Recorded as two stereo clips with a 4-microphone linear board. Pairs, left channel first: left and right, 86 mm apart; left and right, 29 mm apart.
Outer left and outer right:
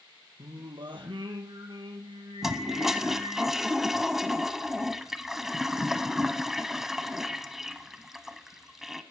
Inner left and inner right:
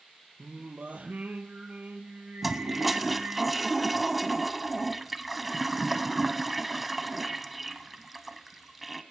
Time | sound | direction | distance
0.4 | singing | 70° right (ahead or behind) | 2.5 m
2.4 | a toilet flushing | 5° right (ahead or behind) | 0.9 m